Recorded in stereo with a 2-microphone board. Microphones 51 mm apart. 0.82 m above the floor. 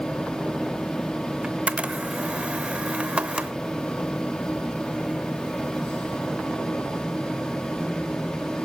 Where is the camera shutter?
25° right (ahead or behind), 0.8 m.